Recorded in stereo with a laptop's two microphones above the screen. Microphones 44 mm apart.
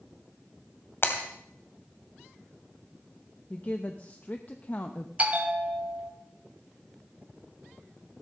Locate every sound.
1.0 s breaking glass: 55° left (ahead or behind), 2 m
3.5 s a woman speaking: 35° left (ahead or behind), 0.8 m
5.2 s a bell: 30° right (ahead or behind), 1.7 m